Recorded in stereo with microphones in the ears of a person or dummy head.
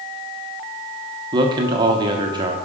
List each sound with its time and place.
1.3 s a man speaking: 25° right (ahead or behind), 0.9 m